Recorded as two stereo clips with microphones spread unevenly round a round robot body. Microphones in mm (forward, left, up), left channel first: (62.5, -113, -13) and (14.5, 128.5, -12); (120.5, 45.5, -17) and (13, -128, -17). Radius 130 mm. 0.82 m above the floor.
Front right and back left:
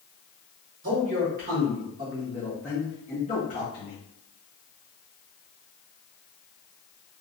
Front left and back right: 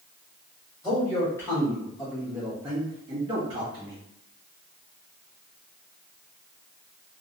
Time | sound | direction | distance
0.8 | a man speaking | 125° left | 1.3 m